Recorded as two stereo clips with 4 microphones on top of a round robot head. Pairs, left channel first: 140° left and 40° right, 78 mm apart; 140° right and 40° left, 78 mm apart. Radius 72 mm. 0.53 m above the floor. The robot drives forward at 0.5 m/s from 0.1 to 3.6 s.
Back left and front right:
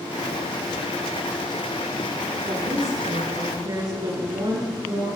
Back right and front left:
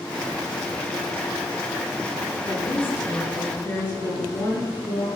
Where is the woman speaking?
75° right, 8.5 m; by 5.1 s 80° right, 8 m.